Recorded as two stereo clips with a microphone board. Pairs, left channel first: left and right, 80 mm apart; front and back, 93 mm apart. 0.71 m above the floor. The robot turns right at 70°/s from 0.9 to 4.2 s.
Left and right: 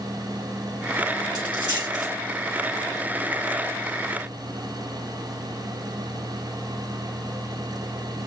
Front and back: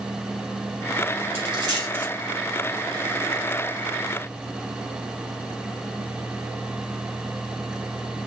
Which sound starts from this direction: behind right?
A dropped coin, at 1.4 s.